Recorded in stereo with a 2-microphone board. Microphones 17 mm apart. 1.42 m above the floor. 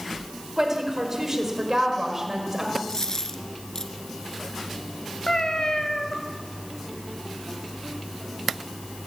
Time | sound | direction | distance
0.6 | a woman speaking | 25° right (ahead or behind) | 6 m
2.9 | a dropped coin | 35° left (ahead or behind) | 2.5 m
5.3 | a cat meowing | 40° left (ahead or behind) | 2.5 m